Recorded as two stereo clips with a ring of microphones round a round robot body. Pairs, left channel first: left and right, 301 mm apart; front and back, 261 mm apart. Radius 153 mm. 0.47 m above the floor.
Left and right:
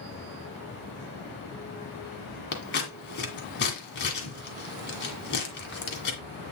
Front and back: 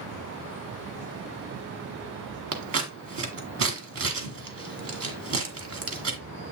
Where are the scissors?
145° left, 1.9 m.